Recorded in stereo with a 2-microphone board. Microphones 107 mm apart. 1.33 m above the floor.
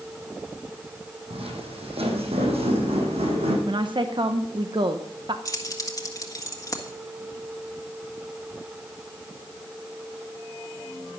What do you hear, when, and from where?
1.3 s footsteps: 65° right (ahead or behind), 3.5 m; by 3.6 s 70° right (ahead or behind), 4.5 m
3.7 s a woman speaking: 50° right (ahead or behind), 0.9 m
5.5 s keys jangling: 30° left (ahead or behind), 1.6 m